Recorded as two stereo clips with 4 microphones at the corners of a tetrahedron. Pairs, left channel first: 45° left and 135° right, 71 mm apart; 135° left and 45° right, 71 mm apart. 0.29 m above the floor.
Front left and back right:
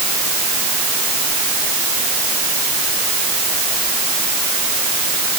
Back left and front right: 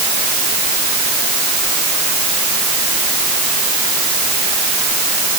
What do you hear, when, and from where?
Only background noise.